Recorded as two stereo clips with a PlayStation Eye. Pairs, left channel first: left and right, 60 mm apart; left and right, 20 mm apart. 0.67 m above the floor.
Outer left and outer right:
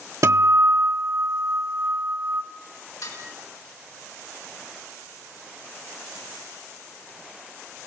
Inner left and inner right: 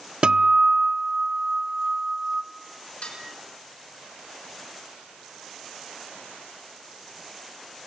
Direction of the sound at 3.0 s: 75° left (ahead or behind).